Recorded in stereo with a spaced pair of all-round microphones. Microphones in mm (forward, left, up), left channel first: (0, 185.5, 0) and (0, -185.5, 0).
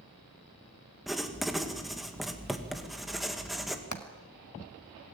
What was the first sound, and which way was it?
Writing, centre (ahead or behind).